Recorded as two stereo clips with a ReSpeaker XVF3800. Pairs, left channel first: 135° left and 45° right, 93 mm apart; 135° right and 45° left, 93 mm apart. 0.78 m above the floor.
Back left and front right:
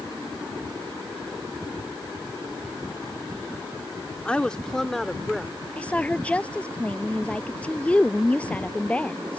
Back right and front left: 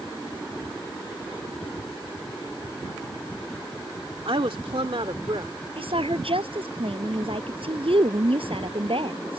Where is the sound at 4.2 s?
55° left; by 5.5 s 45° left.